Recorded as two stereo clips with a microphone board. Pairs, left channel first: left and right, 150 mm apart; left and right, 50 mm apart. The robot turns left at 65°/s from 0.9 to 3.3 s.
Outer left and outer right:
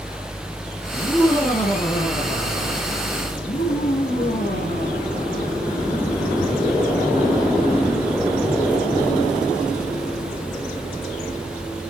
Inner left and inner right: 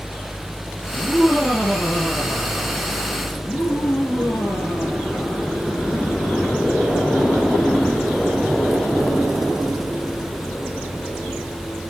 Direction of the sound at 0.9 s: 155° right.